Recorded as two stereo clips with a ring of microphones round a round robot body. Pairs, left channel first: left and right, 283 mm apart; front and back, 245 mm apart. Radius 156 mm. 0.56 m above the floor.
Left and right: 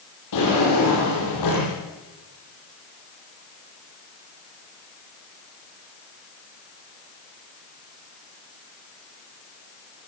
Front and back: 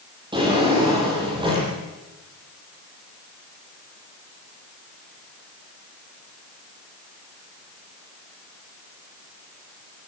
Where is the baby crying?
No baby crying in this recording.